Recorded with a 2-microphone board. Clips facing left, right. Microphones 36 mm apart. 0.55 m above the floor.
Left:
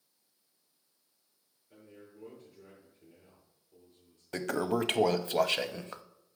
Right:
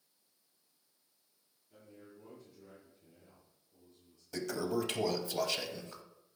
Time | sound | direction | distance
1.7 | a man speaking | 70° left (ahead or behind) | 6.5 m
4.3 | a toilet flushing | 50° left (ahead or behind) | 0.5 m